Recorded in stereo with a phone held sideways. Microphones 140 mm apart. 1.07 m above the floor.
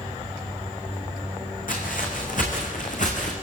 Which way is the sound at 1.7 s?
70° left (ahead or behind).